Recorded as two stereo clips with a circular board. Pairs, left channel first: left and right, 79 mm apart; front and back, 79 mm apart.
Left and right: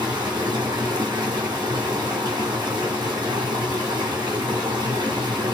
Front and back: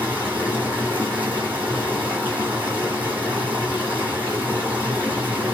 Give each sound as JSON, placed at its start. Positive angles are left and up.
{"t": 0.0, "sound": "running water", "azimuth_deg": -110, "distance_m": 1.7}